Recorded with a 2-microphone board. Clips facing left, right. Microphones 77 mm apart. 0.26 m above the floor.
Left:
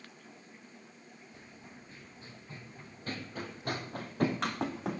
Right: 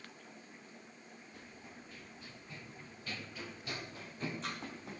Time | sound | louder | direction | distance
1.3 | running footsteps | even | 25° left (ahead or behind) | 3.5 m